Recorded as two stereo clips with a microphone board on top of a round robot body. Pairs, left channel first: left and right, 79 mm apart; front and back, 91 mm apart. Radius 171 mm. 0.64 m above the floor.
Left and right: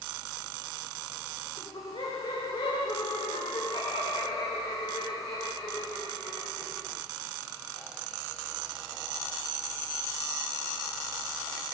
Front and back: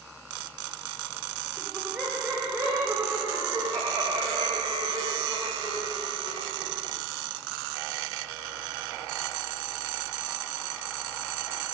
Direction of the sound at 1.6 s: 95° left.